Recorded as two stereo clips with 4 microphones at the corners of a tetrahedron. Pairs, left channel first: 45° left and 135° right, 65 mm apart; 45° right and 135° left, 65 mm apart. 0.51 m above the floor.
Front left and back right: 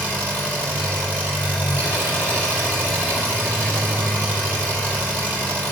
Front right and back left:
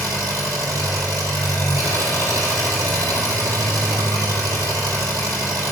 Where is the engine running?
165° left, 3.5 m.